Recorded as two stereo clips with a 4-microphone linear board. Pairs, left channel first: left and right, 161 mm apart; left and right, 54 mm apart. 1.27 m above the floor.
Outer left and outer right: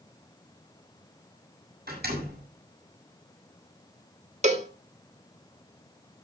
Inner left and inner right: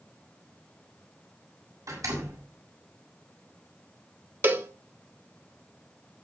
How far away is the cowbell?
About 1.4 m.